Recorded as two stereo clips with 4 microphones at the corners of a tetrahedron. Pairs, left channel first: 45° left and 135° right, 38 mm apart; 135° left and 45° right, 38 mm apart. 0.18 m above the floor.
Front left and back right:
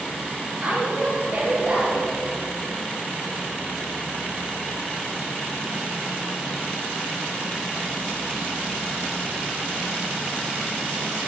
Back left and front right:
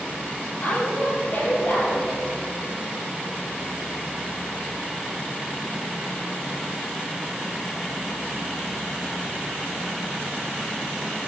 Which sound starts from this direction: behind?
A woman speaking, at 0.6 s.